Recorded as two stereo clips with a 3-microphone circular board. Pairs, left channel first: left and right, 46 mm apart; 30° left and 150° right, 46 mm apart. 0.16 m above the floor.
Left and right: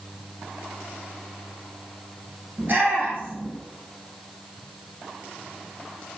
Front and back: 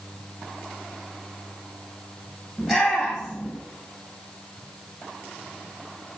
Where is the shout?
50° right, 2.5 m.